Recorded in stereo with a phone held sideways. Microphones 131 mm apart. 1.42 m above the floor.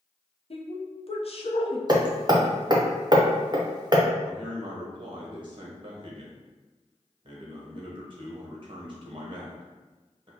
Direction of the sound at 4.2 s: 45° right (ahead or behind).